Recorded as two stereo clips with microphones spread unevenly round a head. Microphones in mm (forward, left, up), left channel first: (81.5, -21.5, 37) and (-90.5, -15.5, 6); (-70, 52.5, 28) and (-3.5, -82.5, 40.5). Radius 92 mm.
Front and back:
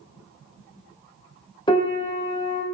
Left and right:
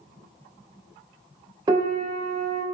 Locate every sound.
1.7 s a piano: 20° right, 0.6 m